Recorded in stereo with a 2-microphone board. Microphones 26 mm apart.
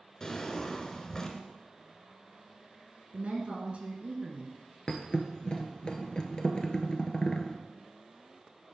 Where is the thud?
35° left (ahead or behind), 1.2 m.